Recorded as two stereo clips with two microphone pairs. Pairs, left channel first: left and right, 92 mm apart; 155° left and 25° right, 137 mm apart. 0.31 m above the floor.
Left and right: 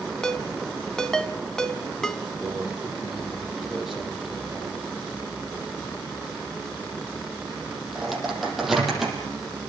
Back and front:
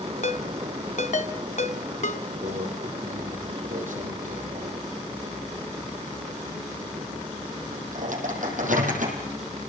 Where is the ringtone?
170° left, 1.6 m.